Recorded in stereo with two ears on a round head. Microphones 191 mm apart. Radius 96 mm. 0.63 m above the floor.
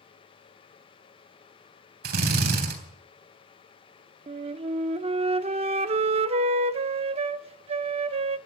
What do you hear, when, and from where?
2.0 s a drill: 50° right (ahead or behind), 3.5 m
4.3 s a flute: 30° right (ahead or behind), 0.6 m